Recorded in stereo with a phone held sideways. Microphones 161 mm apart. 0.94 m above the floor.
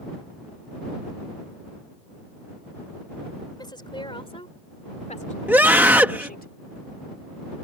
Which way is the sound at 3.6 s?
25° left (ahead or behind).